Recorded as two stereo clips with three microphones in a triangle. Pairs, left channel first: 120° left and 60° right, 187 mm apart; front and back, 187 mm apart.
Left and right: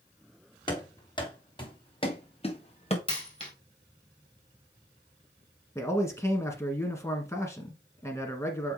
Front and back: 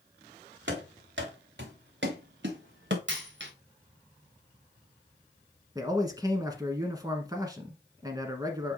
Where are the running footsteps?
175° right, 3 m; by 3.0 s 175° left, 1.7 m.